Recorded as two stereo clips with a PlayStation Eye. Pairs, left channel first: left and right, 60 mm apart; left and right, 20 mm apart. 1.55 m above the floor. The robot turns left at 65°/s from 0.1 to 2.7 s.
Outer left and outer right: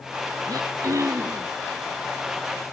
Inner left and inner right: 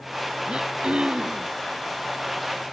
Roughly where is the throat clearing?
Right.